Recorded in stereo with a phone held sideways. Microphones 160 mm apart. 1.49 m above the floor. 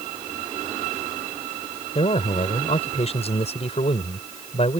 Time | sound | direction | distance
1.9 | a man speaking | 40° left (ahead or behind) | ?